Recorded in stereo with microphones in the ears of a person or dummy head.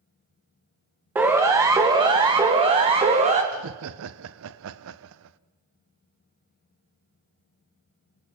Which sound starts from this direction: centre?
A siren, at 1.1 s.